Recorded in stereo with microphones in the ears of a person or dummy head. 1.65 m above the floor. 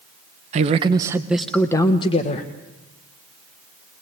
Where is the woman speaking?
40° right (ahead or behind), 1.3 m; by 2.5 s 40° left (ahead or behind), 1.4 m.